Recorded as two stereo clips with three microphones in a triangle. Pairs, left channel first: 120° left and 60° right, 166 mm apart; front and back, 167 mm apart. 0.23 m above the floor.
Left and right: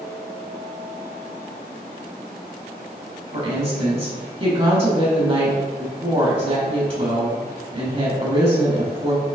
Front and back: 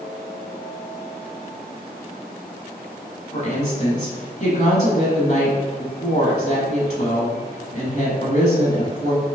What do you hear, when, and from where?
3.3 s a woman speaking: 20° right, 1.5 m